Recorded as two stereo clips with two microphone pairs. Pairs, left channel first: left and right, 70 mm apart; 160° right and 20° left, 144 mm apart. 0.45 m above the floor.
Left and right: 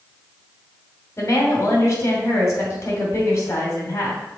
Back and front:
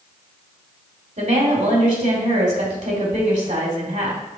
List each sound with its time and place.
1.2 s a woman speaking: 45° left, 2 m